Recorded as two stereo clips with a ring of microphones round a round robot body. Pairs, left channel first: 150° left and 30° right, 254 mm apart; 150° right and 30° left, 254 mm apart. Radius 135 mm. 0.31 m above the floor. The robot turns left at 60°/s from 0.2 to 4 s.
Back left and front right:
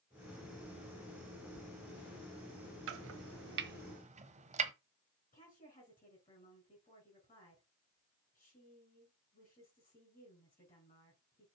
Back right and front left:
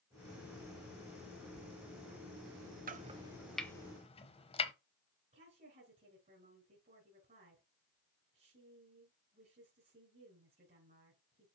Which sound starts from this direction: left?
A woman speaking, at 5.3 s.